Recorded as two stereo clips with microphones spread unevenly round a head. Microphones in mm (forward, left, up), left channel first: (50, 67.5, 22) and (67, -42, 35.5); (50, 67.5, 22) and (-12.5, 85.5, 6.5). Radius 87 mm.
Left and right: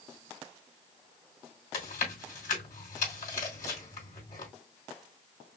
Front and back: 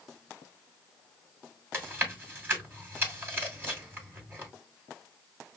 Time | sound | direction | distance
1.7 | chewing | 105° left | 2.5 m